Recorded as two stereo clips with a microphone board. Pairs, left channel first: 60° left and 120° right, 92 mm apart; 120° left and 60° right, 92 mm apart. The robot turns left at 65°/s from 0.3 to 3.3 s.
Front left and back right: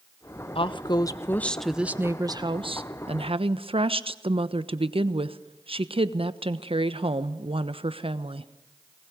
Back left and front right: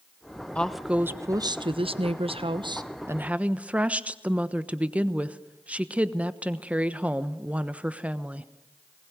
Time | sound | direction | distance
0.6 | a woman speaking | 40° left | 1.1 m